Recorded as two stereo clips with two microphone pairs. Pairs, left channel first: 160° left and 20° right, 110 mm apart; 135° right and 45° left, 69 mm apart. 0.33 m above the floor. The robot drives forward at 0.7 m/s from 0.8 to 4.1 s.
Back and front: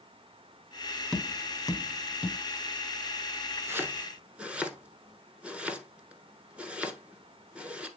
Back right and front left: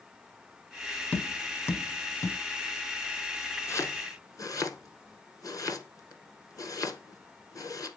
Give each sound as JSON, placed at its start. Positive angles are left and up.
{"t": 1.1, "sound": "tapping", "azimuth_deg": -130, "distance_m": 0.8}
{"t": 3.7, "sound": "chopping", "azimuth_deg": -85, "distance_m": 1.4}